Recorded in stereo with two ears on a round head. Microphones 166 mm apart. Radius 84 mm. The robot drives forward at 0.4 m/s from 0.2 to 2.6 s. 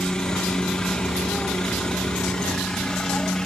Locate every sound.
0.0 s a helicopter: 5° left (ahead or behind)